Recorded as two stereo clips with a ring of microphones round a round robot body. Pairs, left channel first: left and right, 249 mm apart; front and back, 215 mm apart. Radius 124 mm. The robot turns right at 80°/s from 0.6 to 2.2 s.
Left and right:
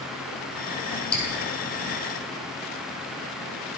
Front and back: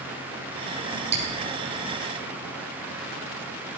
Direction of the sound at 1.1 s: 175° left.